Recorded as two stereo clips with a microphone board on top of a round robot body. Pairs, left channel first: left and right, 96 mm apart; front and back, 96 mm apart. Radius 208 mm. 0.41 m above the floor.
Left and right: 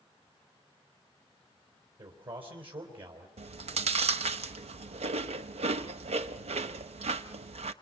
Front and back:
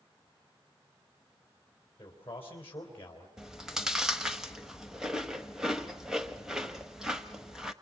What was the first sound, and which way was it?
A man speaking, 65° right.